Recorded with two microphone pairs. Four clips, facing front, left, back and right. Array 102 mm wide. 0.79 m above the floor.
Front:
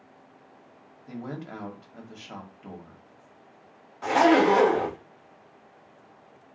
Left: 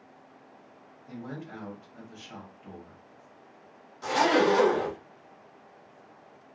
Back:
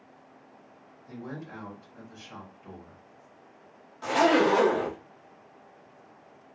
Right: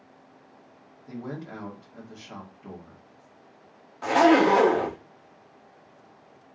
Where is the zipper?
70° right, 1.3 m.